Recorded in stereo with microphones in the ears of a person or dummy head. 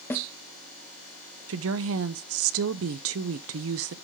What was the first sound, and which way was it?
A snare drum, 15° left (ahead or behind).